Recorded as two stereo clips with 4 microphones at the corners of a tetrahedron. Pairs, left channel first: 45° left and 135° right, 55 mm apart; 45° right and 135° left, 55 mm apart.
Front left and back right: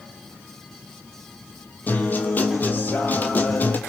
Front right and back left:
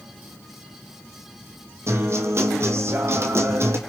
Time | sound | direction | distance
1.9 | a guitar | 100° left | 1.5 m